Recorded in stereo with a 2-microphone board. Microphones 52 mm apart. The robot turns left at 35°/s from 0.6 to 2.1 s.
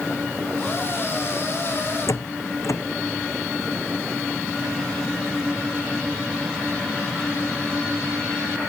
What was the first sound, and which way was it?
A door slam, 80° left.